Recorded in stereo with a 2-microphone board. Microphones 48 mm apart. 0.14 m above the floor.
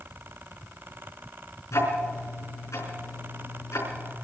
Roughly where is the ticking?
Left.